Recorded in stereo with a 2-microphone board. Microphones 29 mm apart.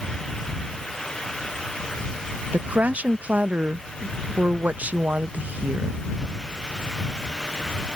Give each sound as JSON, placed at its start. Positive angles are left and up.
{"t": 2.5, "sound": "a woman speaking", "side_deg": -55}